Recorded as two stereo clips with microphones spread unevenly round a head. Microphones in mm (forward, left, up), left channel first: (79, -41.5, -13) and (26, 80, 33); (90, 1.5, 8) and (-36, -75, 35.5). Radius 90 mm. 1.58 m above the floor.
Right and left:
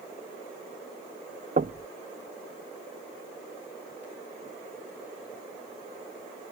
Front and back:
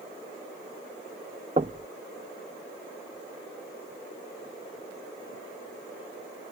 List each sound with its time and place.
1.6 s knocking: 155° left